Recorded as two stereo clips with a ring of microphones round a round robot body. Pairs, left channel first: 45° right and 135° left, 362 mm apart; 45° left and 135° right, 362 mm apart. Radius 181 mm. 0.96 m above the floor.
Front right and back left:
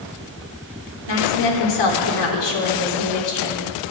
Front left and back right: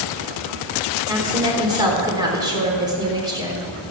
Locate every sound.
1.1 s a woman speaking: 55° right, 3.5 m